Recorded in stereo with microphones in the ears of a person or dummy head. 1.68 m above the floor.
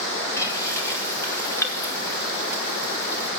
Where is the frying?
10° left (ahead or behind), 2.5 m.